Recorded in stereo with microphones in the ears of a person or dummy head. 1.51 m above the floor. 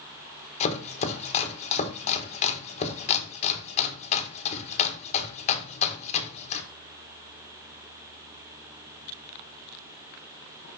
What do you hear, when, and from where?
0.6 s chopping: 35° left (ahead or behind), 1.3 m